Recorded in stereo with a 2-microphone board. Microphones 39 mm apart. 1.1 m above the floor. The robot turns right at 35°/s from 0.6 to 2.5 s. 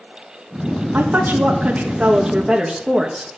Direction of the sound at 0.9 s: 65° right.